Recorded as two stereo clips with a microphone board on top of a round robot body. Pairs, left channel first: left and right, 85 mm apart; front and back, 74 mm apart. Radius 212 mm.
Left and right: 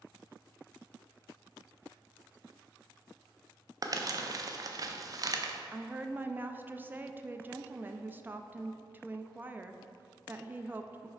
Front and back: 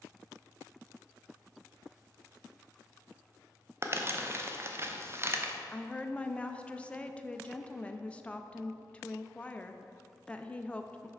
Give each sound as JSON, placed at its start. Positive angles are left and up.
{"t": 3.8, "sound": "crumpling", "azimuth_deg": -130, "distance_m": 0.7}
{"t": 5.7, "sound": "a woman speaking", "azimuth_deg": -55, "distance_m": 0.6}